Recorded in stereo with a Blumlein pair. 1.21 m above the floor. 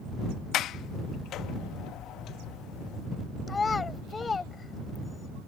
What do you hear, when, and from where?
0.5 s a sliding door: 30° left
3.5 s a child speaking: 15° left